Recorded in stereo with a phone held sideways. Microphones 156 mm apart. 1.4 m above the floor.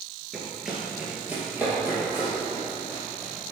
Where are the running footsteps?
Centre (ahead or behind), 1.5 m; by 3.3 s 15° right (ahead or behind), 4 m.